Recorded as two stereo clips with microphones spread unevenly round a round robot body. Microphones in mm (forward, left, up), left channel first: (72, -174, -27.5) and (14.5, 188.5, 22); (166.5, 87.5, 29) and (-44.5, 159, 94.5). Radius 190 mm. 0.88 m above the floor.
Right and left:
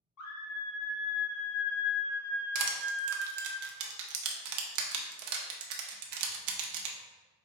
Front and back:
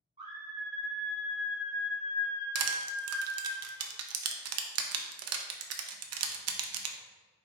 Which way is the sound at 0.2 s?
120° right.